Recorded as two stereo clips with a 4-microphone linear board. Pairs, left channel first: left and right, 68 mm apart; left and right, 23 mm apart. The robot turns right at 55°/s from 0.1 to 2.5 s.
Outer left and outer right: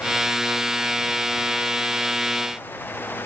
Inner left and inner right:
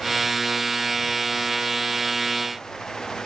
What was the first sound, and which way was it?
Only background noise.